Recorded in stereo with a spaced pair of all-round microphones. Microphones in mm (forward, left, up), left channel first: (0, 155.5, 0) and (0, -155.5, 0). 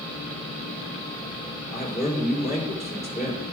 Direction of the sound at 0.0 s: 15° left (ahead or behind).